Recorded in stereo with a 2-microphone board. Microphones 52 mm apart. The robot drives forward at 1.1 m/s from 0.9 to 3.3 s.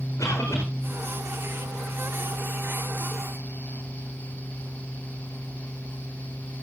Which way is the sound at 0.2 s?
75° left (ahead or behind).